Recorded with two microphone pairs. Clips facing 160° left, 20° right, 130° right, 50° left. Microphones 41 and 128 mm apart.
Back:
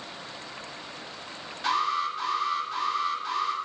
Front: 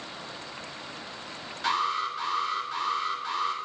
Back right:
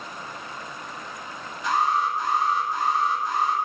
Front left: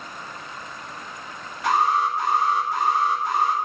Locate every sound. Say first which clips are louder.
1.6 s an alarm: back 1 dB, front left 2 dB; 70° left, 3 m